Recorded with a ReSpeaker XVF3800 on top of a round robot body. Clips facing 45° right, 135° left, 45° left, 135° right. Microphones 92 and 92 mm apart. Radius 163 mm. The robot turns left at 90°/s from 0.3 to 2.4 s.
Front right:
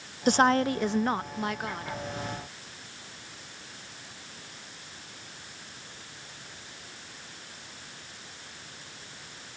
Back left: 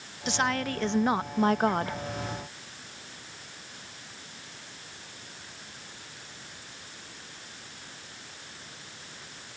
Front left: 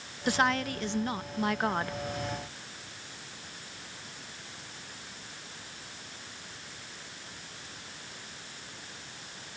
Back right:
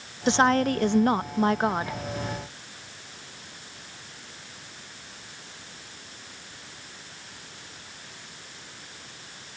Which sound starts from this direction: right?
A woman speaking, at 0.3 s.